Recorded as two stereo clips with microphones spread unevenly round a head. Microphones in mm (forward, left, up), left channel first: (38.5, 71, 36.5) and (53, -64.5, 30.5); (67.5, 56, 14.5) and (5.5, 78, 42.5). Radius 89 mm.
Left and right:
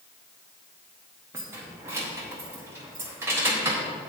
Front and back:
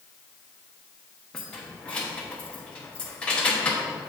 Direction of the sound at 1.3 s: 140° right.